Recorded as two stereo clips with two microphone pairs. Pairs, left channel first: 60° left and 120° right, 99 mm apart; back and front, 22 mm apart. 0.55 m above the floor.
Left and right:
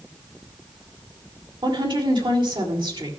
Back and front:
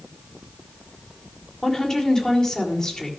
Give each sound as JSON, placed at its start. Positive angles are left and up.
{"t": 1.6, "sound": "a woman speaking", "azimuth_deg": -120, "distance_m": 2.0}